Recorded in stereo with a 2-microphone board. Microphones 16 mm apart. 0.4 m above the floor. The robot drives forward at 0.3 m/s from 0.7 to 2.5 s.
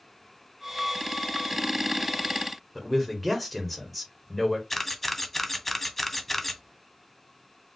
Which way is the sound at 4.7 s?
10° left (ahead or behind).